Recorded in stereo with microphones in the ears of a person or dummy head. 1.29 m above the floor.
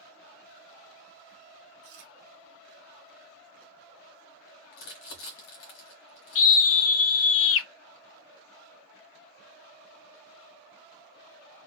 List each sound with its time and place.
1.8 s chewing: 50° right (ahead or behind), 0.7 m
4.7 s crumpling: 70° left (ahead or behind), 1.5 m
6.3 s a scream: 75° left (ahead or behind), 0.7 m